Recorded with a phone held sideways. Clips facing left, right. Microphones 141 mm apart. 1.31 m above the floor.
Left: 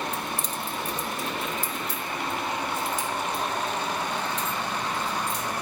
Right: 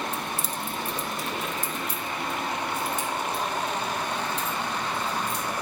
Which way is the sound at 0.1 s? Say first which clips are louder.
Even; 15° left (ahead or behind).